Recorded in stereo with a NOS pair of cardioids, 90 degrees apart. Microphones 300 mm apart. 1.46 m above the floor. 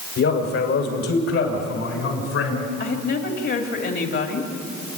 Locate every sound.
0.2 s a man speaking: 60° left, 6 m; by 2.7 s 50° left, 6.5 m
2.8 s a woman speaking: 45° left, 3.5 m